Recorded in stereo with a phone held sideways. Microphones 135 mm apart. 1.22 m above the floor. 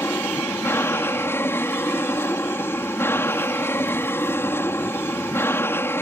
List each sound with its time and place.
0.0 s an aircraft: 15° left (ahead or behind)